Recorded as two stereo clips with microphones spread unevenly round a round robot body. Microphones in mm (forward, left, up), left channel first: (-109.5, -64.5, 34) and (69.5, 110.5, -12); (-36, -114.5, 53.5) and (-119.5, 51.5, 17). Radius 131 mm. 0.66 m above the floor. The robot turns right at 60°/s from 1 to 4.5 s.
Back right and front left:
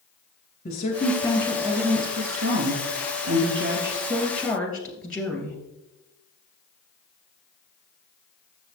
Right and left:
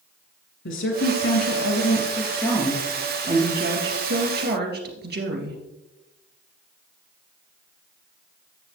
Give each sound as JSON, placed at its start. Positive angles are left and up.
{"t": 0.7, "sound": "a woman speaking", "azimuth_deg": -75, "distance_m": 3.0}